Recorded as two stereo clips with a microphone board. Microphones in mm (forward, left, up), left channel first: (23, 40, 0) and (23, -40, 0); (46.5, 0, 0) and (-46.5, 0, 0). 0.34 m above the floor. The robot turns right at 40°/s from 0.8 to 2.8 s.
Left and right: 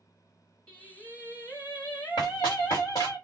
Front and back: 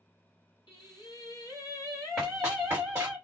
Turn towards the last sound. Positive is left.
turn(degrees=120)